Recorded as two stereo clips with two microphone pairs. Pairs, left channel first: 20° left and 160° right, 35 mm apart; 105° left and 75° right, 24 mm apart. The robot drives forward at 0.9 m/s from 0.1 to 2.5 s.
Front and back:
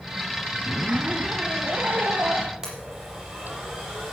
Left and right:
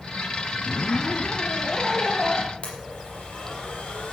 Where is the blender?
130° left, 5.5 m.